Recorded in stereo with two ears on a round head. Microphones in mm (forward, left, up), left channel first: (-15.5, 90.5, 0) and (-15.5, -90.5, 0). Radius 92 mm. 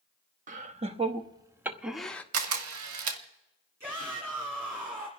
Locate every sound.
0.5 s laughter: 40° right (ahead or behind), 1.2 m; by 2.2 s 10° left (ahead or behind), 1.0 m
2.3 s a camera shutter: 85° right, 1.4 m
3.8 s a shout: 15° right (ahead or behind), 1.9 m